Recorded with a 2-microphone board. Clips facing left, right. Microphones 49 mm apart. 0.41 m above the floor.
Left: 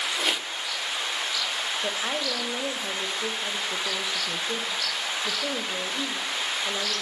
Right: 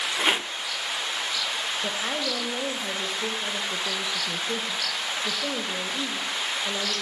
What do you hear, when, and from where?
0.2 s a rattle: 30° right (ahead or behind), 0.6 m
1.8 s a woman speaking: 5° left (ahead or behind), 1.8 m